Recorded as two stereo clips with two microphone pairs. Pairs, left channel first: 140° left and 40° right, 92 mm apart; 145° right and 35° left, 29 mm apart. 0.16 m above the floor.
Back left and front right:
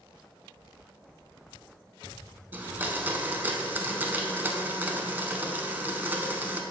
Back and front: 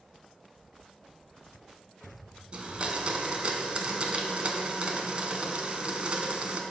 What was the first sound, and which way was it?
A blender, 20° left.